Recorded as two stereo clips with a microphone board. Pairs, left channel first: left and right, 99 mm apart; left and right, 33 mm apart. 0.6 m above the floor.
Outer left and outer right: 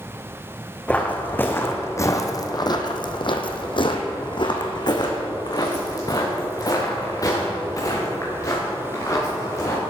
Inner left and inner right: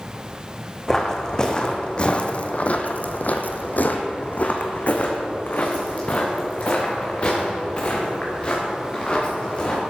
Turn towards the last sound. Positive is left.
turn(degrees=30)  # may be behind; listen again after turning